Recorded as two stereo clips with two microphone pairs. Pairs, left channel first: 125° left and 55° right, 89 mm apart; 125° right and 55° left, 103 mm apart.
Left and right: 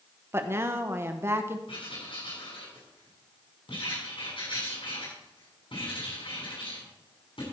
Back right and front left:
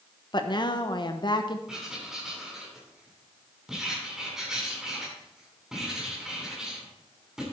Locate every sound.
0.3 s a woman speaking: 110° right, 1.0 m
1.7 s writing: 140° left, 6 m